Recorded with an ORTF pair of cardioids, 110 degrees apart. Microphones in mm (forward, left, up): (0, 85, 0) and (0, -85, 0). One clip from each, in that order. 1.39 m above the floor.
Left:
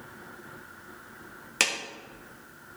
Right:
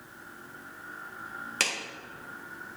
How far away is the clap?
About 1.1 m.